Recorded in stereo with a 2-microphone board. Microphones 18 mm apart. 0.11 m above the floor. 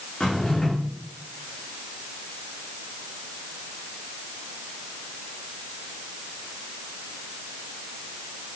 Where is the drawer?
40° left (ahead or behind), 3 m.